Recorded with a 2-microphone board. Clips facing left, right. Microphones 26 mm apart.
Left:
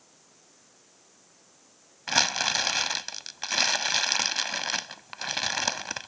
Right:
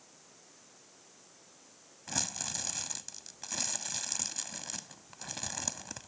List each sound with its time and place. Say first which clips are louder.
2.1 s crumpling: left 14 dB; 65° left (ahead or behind)